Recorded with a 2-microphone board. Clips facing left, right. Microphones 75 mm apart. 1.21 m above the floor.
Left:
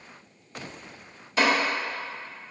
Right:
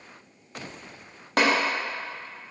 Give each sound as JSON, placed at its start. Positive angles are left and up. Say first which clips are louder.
{"t": 1.4, "sound": "tapping", "louder": "right 1 dB", "side_deg": -60, "distance_m": 1.8}